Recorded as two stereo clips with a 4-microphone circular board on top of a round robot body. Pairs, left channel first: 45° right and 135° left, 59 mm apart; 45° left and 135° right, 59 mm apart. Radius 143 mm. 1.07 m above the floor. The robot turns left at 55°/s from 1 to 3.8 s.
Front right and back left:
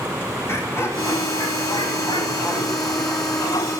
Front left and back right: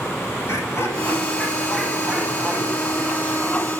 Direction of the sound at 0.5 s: Straight ahead.